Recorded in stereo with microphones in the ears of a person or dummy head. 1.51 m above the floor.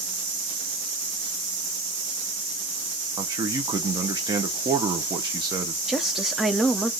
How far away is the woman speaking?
About 0.7 m.